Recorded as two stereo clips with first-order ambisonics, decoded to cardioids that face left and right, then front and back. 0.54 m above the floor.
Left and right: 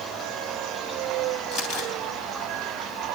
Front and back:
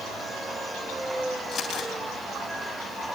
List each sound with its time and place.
1.5 s crumpling: 60° left, 3 m